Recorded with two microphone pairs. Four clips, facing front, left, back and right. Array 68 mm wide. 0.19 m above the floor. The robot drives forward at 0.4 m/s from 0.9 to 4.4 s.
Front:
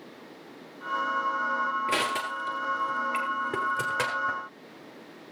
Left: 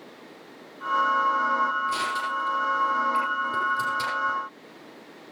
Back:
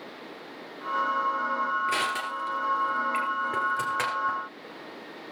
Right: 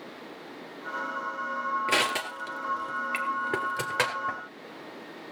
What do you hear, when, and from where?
1.9 s crushing: 75° right, 3 m; by 4.4 s 95° right, 3 m